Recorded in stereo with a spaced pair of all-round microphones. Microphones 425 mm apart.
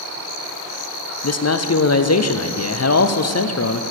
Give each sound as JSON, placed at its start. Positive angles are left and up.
{"t": 1.2, "sound": "a man speaking", "side_deg": 40, "distance_m": 0.5}